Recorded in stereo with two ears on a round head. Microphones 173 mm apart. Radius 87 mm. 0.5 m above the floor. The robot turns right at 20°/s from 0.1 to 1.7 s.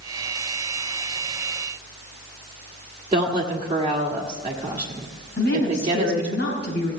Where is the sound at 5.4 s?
55° left (ahead or behind), 4.5 m.